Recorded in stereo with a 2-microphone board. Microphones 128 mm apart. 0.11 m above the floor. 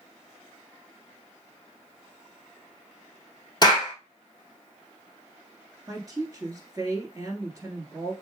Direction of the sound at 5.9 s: 25° right (ahead or behind).